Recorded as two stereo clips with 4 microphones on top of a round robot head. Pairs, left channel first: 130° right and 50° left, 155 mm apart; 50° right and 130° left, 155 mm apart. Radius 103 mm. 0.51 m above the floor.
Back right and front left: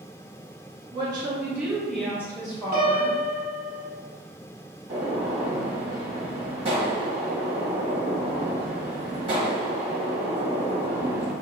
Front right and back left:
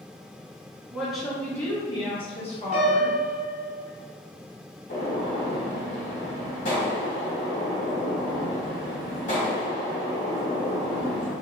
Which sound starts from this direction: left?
A piano, at 2.7 s.